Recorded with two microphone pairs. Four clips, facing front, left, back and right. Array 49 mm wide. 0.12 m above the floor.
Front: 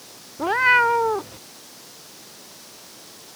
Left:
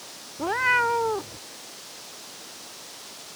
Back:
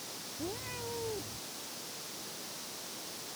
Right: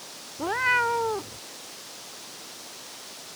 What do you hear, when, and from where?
0.4 s a cat meowing: straight ahead